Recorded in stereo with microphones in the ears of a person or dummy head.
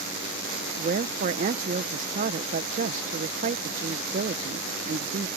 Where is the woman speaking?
40° right (ahead or behind).